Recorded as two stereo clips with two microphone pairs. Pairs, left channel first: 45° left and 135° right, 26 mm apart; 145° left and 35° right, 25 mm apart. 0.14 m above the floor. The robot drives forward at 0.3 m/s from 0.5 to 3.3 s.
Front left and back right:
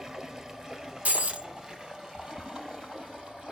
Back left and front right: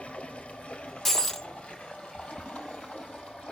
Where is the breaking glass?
140° right, 1.0 m; by 1.5 s 145° right, 1.1 m.